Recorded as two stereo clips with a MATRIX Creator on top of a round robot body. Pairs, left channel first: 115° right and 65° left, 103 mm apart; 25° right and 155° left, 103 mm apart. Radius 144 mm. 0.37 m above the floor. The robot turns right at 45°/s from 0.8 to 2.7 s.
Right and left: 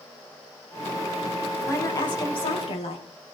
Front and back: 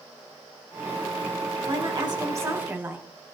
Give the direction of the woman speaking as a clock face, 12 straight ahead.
6 o'clock.